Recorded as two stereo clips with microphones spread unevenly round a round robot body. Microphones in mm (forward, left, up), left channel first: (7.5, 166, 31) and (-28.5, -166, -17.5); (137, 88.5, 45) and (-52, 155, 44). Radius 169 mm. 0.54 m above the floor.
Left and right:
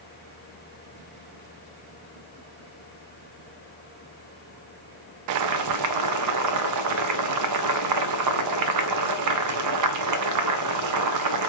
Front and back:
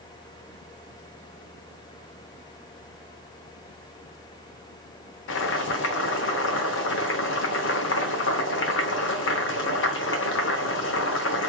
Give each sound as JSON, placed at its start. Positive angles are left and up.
{"t": 5.3, "sound": "boiling", "azimuth_deg": -60, "distance_m": 0.6}